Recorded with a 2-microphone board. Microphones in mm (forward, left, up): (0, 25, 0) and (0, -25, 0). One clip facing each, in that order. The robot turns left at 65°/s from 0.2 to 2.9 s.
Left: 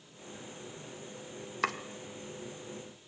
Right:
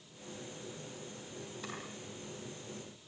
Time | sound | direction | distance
1.6 | chopping | 85° left | 1.6 m